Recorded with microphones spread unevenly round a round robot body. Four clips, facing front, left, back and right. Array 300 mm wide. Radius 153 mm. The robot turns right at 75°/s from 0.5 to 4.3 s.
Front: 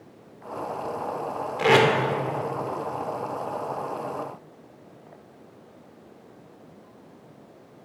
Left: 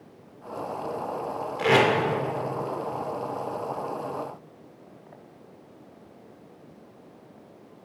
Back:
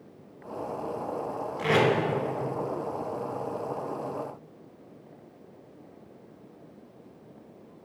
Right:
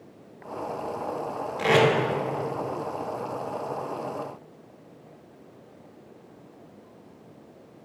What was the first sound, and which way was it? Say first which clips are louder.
Tape being pulled: even, front 5 dB; straight ahead.